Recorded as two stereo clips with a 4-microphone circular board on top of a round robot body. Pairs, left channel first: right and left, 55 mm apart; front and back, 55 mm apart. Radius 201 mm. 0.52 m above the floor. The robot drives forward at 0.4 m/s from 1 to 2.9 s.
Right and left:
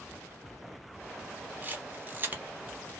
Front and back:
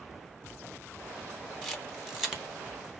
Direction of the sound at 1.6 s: 80° left.